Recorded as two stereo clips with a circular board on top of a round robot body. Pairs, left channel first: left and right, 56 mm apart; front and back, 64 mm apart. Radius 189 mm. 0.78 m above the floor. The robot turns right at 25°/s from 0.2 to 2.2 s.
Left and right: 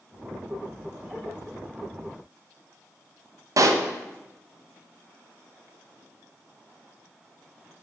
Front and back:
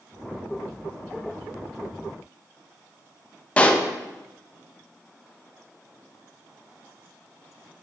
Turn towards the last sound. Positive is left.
turn(degrees=-70)